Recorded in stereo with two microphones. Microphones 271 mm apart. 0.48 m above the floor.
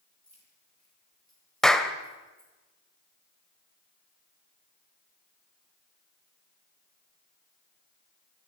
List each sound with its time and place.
0.2 s keys jangling: 65° right (ahead or behind), 8.5 m; by 2.5 s 75° right (ahead or behind), 8 m
1.6 s a clap: centre (ahead or behind), 1.3 m